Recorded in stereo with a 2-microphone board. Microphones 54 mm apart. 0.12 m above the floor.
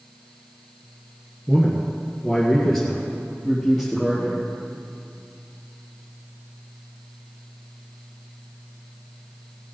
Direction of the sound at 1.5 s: 10° left (ahead or behind).